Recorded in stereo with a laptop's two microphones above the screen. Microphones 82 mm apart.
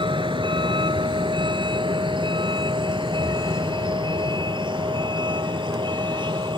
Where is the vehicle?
80° right; by 6.6 s 70° right (ahead or behind).